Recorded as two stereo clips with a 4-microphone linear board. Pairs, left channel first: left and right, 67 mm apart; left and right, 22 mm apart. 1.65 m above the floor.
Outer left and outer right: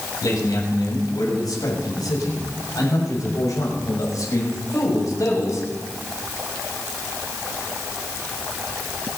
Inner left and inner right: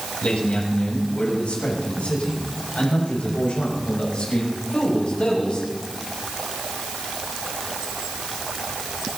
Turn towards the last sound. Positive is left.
turn(degrees=55)  # may be behind; listen again after turning